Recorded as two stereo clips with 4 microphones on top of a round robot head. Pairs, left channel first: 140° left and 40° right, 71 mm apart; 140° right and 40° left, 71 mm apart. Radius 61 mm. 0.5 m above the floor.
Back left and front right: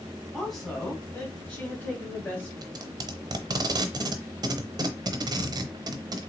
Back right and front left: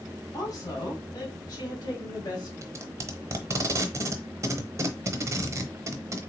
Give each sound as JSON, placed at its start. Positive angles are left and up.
{"t": 0.3, "sound": "a woman speaking", "azimuth_deg": -130, "distance_m": 1.7}
{"t": 2.6, "sound": "tape being pulled", "azimuth_deg": -10, "distance_m": 0.6}